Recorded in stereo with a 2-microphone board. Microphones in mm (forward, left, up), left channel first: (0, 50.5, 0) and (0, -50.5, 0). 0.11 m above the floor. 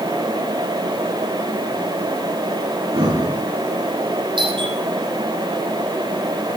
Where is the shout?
No shout in this recording.